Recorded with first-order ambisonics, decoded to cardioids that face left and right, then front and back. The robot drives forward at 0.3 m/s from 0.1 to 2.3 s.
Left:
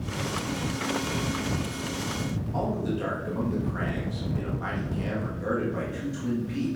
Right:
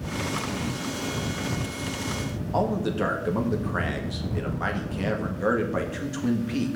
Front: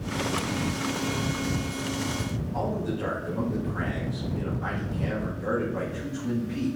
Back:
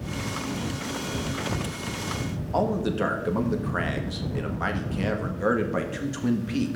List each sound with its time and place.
2.5 s a man speaking: 145° right, 1.6 m